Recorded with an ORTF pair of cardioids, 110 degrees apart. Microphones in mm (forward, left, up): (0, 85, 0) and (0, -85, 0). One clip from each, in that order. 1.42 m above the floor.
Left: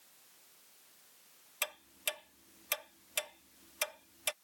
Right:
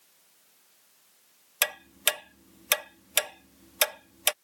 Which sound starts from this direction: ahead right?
Ticking, at 1.6 s.